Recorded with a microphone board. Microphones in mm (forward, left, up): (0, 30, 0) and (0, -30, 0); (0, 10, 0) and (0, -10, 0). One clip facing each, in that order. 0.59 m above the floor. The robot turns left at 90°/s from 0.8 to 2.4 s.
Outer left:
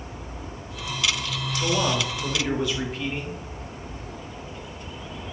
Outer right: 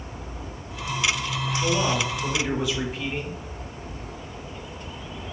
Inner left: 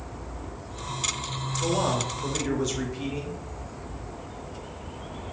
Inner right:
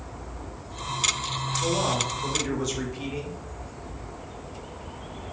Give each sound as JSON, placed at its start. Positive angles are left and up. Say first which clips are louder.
{"t": 1.6, "sound": "a man speaking", "louder": "even, inner left 1 dB", "side_deg": 20, "distance_m": 0.8}